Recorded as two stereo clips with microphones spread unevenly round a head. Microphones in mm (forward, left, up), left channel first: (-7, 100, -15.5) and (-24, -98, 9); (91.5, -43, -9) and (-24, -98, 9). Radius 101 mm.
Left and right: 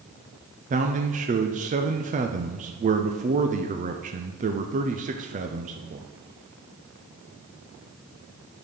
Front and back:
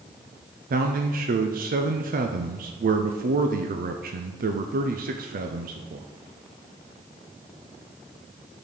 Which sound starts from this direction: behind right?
A man speaking, at 0.7 s.